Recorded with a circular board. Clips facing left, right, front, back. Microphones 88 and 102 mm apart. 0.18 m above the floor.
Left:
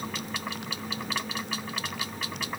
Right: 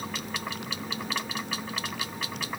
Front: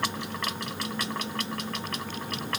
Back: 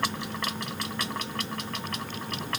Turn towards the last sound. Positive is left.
No sound to turn to.